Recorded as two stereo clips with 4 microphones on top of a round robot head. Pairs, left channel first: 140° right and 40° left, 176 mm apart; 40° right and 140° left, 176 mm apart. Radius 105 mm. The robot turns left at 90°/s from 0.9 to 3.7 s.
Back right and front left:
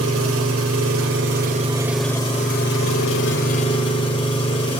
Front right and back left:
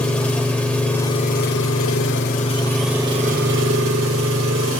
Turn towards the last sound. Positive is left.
turn(degrees=155)